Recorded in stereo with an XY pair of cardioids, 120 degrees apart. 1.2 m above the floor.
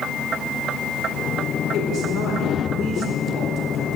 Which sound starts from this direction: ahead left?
A woman speaking, at 1.7 s.